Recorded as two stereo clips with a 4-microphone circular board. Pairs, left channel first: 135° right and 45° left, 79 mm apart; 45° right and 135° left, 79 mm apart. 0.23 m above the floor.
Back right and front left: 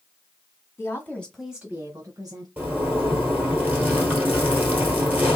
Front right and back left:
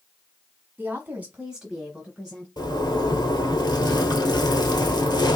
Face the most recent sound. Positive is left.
turn(degrees=-20)